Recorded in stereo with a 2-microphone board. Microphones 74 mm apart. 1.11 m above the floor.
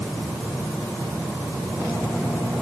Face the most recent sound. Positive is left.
No sound to turn to.